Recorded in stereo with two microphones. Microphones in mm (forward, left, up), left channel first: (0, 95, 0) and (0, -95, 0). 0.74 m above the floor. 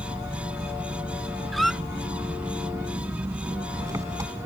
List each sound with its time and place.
0.0 s an engine running: 15° right (ahead or behind)
1.5 s a squeak: centre (ahead or behind)